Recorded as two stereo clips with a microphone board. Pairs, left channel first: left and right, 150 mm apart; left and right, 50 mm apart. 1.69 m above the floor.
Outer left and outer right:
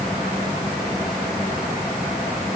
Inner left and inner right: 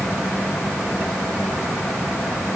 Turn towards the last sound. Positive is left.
No sound to turn to.